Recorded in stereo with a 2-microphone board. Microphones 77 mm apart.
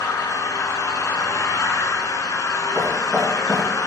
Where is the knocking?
10° left (ahead or behind), 2.5 m.